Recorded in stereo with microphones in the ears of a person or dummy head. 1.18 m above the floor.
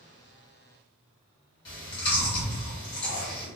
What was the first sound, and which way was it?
Chewing, 30° left (ahead or behind).